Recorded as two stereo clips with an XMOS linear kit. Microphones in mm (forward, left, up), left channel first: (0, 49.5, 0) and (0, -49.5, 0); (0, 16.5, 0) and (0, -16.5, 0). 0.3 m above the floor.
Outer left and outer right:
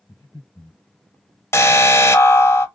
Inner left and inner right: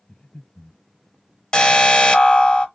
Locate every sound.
0.1 s breathing: 45° left (ahead or behind), 3.5 m
1.5 s an alarm: 25° left (ahead or behind), 0.9 m